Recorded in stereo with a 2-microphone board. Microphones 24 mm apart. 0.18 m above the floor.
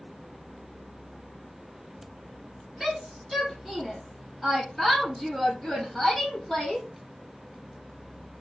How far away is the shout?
About 4.5 m.